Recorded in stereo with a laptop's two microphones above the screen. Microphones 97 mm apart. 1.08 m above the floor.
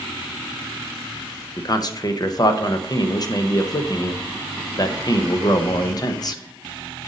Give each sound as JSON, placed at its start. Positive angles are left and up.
{"t": 1.6, "sound": "a man speaking", "side_deg": 45, "distance_m": 0.6}